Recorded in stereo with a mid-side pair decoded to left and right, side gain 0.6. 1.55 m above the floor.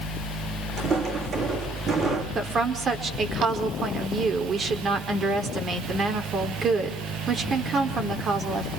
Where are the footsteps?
40° right, 5.5 m.